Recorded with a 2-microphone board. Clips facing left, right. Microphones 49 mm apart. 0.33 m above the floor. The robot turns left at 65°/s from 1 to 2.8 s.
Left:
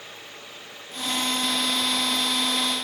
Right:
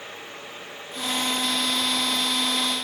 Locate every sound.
Only background noise.